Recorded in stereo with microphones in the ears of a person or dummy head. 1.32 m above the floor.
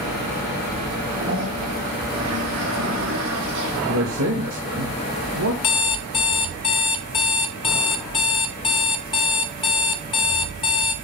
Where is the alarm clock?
25° left (ahead or behind), 0.6 m.